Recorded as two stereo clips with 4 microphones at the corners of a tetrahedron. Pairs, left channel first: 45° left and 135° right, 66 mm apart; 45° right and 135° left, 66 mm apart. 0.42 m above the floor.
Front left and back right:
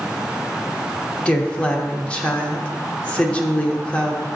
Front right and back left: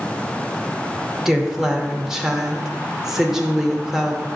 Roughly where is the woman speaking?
Ahead left.